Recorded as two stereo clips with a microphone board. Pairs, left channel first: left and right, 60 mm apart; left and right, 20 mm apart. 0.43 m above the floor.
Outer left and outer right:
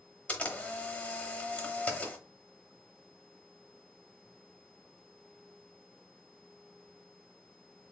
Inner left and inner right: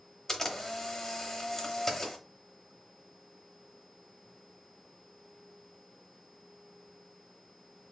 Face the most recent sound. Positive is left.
turn(degrees=25)  # may be behind; listen again after turning